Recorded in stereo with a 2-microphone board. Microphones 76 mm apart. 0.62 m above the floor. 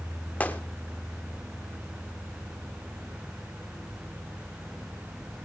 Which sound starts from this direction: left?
A gunshot, at 0.4 s.